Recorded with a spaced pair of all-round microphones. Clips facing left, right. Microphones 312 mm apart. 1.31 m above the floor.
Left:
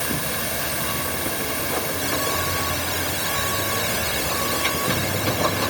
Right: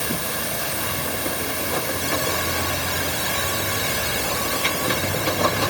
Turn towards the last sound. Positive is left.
No sound to turn to.